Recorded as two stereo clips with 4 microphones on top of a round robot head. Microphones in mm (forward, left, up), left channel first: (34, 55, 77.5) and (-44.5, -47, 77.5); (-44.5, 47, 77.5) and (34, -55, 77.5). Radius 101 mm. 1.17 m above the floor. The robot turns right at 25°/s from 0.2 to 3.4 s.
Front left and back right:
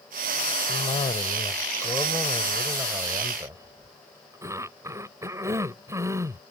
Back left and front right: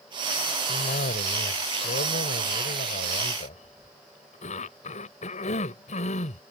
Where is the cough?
95° left; by 6.4 s 165° left.